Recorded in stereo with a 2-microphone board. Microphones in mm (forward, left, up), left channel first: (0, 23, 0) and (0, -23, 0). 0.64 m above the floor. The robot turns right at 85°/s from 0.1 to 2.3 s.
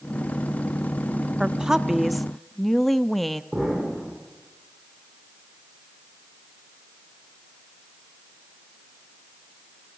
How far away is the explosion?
About 8.5 m.